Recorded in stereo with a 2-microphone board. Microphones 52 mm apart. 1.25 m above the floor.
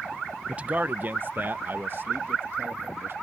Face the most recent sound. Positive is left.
turn(degrees=-50)  # may be behind; listen again after turning